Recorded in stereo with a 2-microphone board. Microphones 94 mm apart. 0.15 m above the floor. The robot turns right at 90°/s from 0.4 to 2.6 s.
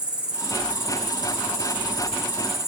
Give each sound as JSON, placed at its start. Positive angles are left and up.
{"t": 0.0, "sound": "an insect", "azimuth_deg": -10, "distance_m": 1.4}